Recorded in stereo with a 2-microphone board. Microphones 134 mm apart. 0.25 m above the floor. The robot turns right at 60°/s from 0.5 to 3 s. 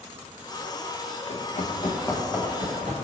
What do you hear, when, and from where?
1.3 s running footsteps: 70° left (ahead or behind), 1.1 m; by 2.9 s 70° right (ahead or behind), 1.5 m